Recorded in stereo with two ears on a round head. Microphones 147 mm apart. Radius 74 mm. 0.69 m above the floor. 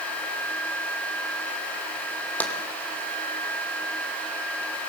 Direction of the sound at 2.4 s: 10° left (ahead or behind).